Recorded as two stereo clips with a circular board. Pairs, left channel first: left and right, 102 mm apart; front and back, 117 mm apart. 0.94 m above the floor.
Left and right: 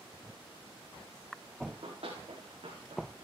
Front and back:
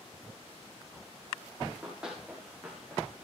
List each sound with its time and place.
1.7 s running footsteps: 95° right, 6.5 m; by 3.2 s 100° right, 5.5 m